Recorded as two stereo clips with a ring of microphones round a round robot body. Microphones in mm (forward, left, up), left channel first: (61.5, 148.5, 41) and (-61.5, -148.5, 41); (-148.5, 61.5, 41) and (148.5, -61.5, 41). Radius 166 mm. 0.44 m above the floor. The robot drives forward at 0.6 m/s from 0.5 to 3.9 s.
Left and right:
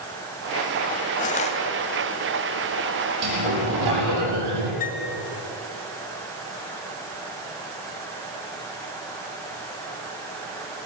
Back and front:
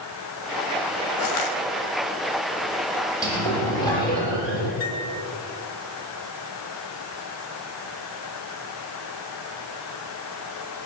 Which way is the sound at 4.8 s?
135° left.